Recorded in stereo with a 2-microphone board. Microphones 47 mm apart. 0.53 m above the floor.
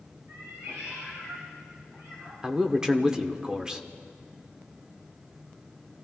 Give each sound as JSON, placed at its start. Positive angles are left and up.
{"t": 0.3, "sound": "a cat meowing", "side_deg": -85, "distance_m": 6.5}
{"t": 2.4, "sound": "a man speaking", "side_deg": -15, "distance_m": 1.1}